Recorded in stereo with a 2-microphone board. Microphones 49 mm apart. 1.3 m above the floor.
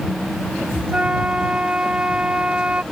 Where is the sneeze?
I don't hear a sneeze.